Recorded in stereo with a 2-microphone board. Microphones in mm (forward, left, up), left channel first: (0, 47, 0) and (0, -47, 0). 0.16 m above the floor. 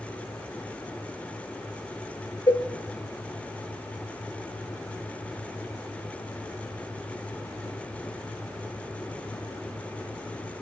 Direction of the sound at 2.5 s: 40° left (ahead or behind).